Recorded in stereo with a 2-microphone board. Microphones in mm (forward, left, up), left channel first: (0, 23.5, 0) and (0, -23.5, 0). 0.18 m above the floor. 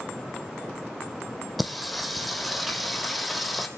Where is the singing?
Centre (ahead or behind), 1.9 m.